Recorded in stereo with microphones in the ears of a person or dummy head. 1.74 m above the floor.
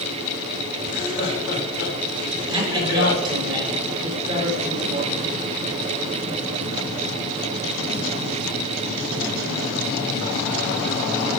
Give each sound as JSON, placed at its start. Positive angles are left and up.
{"t": 0.8, "sound": "laughter", "side_deg": 55, "distance_m": 2.0}
{"t": 2.5, "sound": "a man speaking", "side_deg": -25, "distance_m": 4.5}